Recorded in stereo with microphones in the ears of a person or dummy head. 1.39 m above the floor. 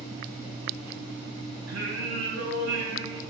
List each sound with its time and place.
1.7 s singing: 75° right (ahead or behind), 6.5 m